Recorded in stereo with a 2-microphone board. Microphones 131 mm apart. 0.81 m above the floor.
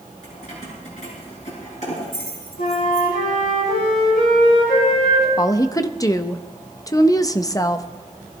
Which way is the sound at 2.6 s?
85° left.